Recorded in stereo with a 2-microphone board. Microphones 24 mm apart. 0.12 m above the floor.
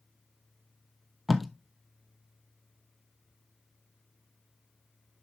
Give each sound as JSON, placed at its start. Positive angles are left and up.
{"t": 1.3, "sound": "tape being pulled", "side_deg": 0, "distance_m": 0.7}